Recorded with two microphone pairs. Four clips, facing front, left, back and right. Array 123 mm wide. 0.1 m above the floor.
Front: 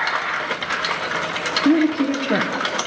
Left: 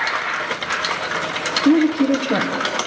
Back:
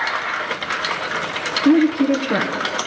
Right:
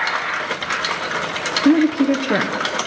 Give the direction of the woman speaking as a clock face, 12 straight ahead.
2 o'clock.